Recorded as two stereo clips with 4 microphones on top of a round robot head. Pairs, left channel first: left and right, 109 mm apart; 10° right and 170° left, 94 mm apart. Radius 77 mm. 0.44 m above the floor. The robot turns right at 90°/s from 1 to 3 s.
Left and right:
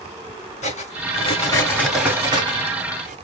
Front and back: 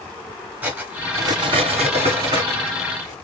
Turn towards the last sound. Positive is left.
turn(degrees=-80)